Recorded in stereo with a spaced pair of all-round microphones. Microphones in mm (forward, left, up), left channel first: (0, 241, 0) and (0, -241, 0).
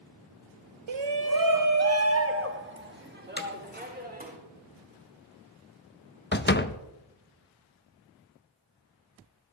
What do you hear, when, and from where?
0.9 s a shout: 70° right (ahead or behind), 0.7 m; by 4.4 s 15° right (ahead or behind), 4 m
3.4 s hammering: 20° left (ahead or behind), 1.7 m
6.3 s a door slam: 25° left (ahead or behind), 0.6 m